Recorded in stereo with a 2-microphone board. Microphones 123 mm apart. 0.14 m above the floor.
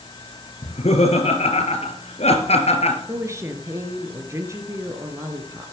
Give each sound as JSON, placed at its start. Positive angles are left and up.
{"t": 0.6, "sound": "laughter", "side_deg": 60, "distance_m": 2.5}
{"t": 3.1, "sound": "a woman speaking", "side_deg": -25, "distance_m": 2.0}